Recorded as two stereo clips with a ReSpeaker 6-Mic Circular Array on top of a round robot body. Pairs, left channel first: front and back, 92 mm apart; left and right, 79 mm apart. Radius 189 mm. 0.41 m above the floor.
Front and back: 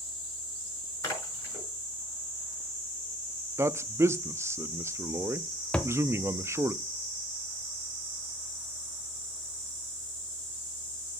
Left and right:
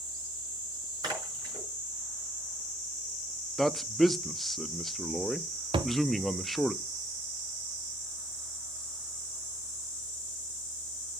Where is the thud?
75° right, 0.6 m.